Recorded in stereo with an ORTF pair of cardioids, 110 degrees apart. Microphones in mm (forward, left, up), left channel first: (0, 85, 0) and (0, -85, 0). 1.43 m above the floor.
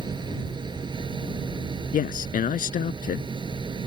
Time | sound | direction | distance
0.0 | a machine running | 25° right | ?
1.9 | a man speaking | 50° left | ?